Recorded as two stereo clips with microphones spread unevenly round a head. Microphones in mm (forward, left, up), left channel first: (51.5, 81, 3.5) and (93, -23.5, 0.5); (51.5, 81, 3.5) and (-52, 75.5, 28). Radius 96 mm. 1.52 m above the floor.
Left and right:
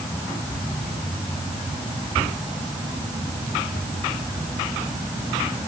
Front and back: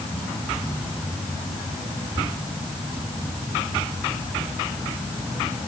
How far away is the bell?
I don't hear a bell.